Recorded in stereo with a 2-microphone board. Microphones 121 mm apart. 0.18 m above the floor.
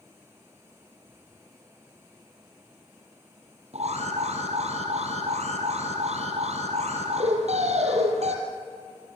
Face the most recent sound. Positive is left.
turn(degrees=-65)  # may be behind; listen again after turning